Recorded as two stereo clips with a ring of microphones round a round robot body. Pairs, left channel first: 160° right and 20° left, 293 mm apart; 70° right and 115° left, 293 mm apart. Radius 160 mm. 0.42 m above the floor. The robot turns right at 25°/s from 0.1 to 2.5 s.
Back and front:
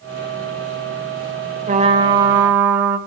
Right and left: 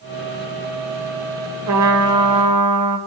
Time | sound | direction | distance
1.7 | a trumpet | 85° left | 1.3 m